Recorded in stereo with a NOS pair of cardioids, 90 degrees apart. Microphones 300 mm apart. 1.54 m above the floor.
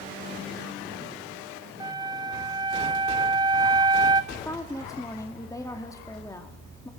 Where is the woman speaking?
10° left, 2.5 m.